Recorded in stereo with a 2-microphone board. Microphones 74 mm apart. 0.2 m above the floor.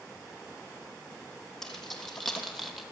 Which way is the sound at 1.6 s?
5° left (ahead or behind).